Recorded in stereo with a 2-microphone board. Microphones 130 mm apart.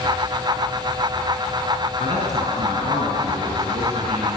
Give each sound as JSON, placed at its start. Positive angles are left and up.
{"t": 2.0, "sound": "a man speaking", "side_deg": -65, "distance_m": 5.5}